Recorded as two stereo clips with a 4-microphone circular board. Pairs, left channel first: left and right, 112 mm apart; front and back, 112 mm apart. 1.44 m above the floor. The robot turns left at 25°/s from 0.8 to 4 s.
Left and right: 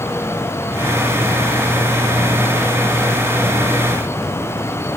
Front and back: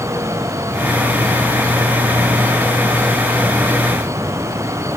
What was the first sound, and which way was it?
Only background noise.